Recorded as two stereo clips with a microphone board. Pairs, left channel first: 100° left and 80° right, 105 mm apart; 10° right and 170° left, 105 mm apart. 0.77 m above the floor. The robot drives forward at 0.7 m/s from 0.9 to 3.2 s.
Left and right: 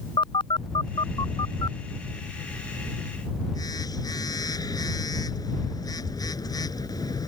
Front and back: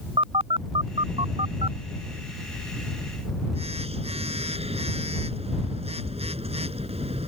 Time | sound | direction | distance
0.2 | a phone buzzing | 140° left | ?